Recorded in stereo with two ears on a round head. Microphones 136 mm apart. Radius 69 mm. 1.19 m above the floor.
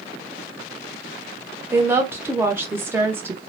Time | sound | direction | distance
1.7 | a woman speaking | 15° right (ahead or behind) | 0.6 m